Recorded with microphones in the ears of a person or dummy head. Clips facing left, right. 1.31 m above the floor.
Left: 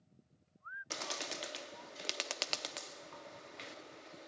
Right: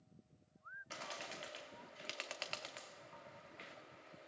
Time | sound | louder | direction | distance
0.9 | a bird | left 6 dB | 60° left (ahead or behind) | 0.7 m